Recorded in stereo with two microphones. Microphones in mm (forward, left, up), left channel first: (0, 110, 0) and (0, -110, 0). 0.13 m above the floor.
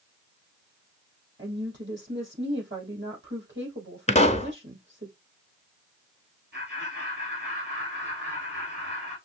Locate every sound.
1.4 s a woman speaking: 55° right (ahead or behind), 4.5 m
4.1 s a pop: 30° left (ahead or behind), 0.5 m
6.5 s laughter: 50° right (ahead or behind), 3 m